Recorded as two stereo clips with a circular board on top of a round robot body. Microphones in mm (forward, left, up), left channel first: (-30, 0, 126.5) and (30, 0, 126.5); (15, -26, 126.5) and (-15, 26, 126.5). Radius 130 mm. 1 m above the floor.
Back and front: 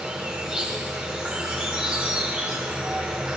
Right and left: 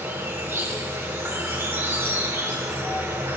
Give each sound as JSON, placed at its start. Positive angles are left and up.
{"t": 0.0, "sound": "an insect", "azimuth_deg": 75, "distance_m": 3.5}